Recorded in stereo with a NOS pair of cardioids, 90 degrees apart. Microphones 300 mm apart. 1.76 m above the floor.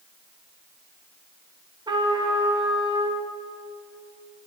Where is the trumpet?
15° right, 1.5 m.